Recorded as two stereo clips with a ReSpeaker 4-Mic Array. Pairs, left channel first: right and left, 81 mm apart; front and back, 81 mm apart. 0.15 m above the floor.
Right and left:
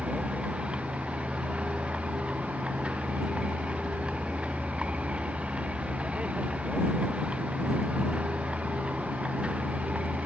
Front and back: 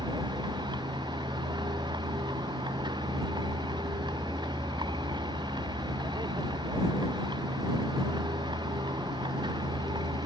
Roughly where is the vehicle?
Behind.